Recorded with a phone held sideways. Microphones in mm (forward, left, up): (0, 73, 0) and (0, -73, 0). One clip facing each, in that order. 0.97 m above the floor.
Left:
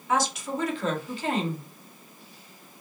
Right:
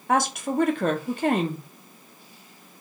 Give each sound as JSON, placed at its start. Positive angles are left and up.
{"t": 0.1, "sound": "a woman speaking", "side_deg": -55, "distance_m": 0.7}